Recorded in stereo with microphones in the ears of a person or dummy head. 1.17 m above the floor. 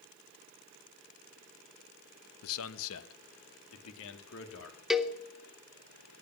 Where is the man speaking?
80° left, 0.9 m; by 4.8 s 70° left (ahead or behind), 2.5 m.